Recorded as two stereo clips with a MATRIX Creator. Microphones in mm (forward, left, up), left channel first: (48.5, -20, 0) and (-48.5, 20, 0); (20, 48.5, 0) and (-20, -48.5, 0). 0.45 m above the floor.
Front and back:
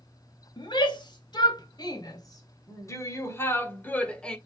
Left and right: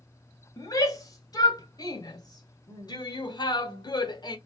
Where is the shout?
15° left, 3 m; by 4.4 s 55° left, 1.5 m.